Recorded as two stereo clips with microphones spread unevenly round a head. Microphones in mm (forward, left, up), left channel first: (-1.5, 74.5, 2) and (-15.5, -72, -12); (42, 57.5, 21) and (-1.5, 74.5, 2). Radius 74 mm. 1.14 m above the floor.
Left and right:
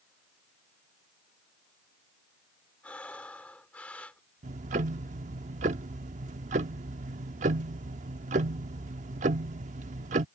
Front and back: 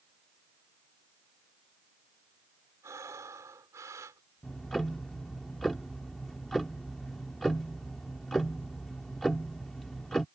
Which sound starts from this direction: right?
Ticking, at 4.4 s.